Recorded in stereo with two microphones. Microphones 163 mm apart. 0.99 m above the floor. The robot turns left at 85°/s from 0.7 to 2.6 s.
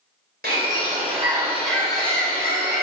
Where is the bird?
100° right, 3 m; by 2.8 s 100° left, 3 m.